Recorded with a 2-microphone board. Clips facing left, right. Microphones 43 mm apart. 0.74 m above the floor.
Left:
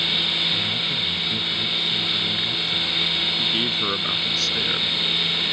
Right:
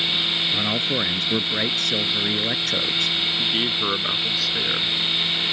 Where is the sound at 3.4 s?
10° right (ahead or behind).